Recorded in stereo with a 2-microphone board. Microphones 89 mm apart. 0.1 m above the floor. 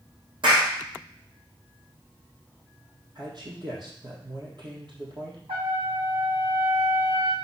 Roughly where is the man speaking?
Right.